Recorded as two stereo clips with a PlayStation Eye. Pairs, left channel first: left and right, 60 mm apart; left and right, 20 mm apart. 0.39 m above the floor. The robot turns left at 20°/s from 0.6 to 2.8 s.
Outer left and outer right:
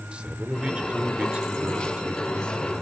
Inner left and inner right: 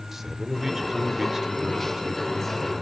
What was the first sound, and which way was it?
A man speaking, 20° right (ahead or behind).